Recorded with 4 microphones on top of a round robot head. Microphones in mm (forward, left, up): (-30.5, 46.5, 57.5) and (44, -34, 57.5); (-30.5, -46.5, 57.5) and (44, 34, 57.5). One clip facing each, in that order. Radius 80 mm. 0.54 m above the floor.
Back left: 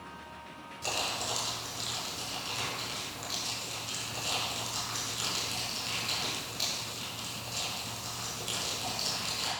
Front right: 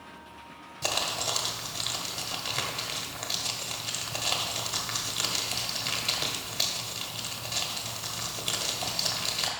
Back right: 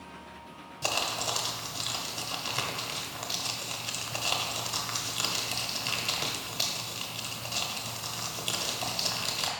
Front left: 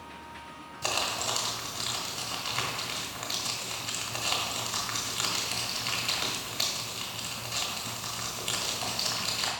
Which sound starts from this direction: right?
Crumpling, at 0.8 s.